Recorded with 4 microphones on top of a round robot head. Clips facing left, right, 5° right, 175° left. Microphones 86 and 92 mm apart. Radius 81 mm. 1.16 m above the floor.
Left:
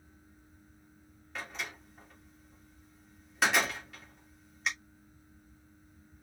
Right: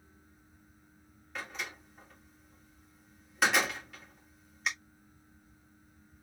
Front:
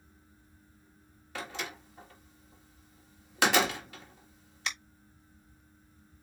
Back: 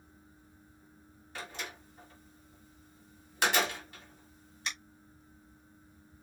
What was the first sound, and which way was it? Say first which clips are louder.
A door slam: even, front 4 dB; straight ahead.